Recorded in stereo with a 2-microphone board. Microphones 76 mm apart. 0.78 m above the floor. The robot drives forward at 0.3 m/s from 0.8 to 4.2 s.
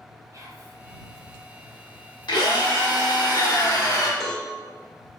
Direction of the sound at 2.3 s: 70° left (ahead or behind).